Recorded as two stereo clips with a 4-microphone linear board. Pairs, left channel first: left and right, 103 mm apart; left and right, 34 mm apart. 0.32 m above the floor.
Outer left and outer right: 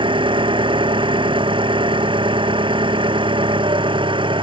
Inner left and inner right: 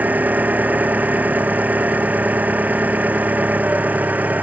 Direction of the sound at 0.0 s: 55° right (ahead or behind).